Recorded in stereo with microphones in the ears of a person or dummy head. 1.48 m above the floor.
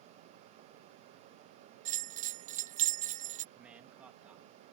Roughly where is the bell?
Right.